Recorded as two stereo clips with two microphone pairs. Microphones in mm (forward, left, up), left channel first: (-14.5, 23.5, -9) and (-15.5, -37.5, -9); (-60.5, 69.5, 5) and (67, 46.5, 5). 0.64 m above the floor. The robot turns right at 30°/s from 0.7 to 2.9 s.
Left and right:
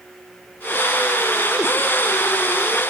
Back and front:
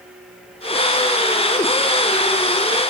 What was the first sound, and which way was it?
Only background noise.